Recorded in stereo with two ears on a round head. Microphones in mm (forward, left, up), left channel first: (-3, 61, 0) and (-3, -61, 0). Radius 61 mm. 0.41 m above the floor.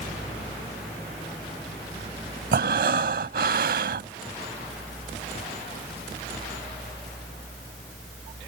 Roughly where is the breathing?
Right.